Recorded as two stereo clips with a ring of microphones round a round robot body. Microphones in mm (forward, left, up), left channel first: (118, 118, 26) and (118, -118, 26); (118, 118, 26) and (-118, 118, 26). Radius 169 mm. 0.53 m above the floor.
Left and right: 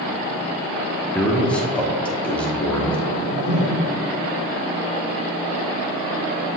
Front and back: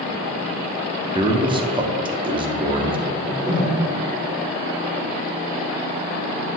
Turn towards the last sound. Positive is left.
turn(degrees=-65)